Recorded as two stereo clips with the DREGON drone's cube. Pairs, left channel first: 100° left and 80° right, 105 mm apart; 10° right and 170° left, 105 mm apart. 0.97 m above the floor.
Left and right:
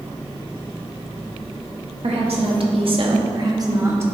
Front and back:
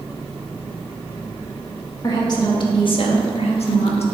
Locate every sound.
2.0 s a woman speaking: 65° right, 1.6 m; by 4.0 s 10° right, 1.1 m